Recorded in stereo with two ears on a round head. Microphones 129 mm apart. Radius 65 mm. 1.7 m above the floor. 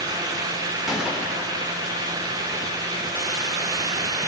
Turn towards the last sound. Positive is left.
turn(degrees=-5)  # may be behind; listen again after turning